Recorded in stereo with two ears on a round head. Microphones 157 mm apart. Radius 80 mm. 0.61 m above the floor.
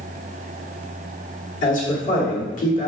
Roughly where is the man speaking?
Left.